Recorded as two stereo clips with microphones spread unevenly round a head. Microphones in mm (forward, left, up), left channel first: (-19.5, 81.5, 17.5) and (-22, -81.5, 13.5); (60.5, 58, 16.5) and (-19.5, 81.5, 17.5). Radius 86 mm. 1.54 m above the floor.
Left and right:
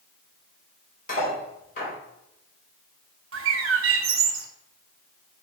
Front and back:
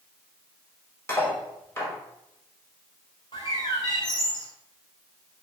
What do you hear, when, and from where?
1.1 s cutlery clinking: 40° left, 4.5 m
3.3 s a bird: 85° right, 1.1 m